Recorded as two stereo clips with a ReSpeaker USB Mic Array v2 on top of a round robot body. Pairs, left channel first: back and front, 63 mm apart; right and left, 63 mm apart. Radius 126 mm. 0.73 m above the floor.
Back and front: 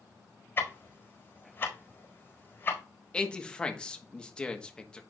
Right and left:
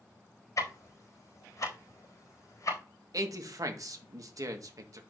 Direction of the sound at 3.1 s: 110° left.